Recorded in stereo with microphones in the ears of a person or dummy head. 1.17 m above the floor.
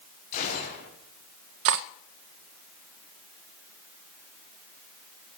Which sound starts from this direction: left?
A gunshot, at 0.3 s.